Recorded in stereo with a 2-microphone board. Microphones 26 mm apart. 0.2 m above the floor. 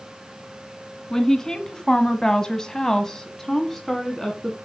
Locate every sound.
1.1 s a woman speaking: 20° left (ahead or behind), 1.8 m; by 4.6 s 5° left (ahead or behind), 2 m